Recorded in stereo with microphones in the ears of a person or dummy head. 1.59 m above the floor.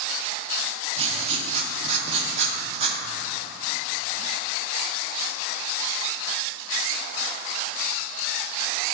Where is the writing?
35° right (ahead or behind), 0.9 m.